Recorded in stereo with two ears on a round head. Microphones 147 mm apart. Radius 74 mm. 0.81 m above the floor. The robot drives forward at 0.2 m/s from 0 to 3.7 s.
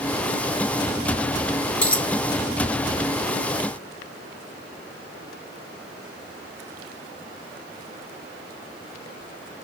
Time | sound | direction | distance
1.8 | a dropped coin | 10° left (ahead or behind) | 0.8 m